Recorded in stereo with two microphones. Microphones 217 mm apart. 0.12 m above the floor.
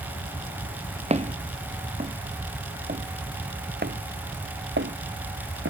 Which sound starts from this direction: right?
Footsteps, at 1.1 s.